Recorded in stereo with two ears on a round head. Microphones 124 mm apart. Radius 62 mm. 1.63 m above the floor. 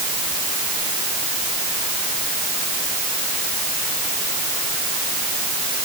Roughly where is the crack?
No crack in this recording.